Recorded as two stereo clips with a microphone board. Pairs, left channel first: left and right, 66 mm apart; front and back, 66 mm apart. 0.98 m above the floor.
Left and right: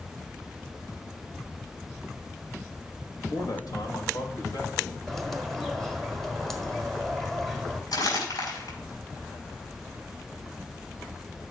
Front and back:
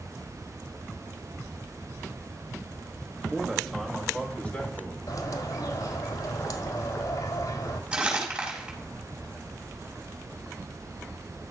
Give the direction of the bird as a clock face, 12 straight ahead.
12 o'clock.